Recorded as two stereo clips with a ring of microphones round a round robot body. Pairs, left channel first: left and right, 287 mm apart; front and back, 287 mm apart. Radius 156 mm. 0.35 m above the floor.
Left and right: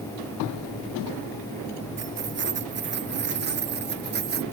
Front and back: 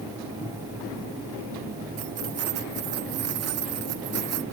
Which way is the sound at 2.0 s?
140° right.